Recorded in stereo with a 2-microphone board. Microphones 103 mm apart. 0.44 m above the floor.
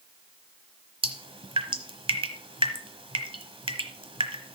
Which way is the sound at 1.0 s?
60° right (ahead or behind).